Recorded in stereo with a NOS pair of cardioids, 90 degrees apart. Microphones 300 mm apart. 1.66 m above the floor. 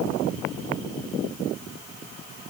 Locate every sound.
Only background noise.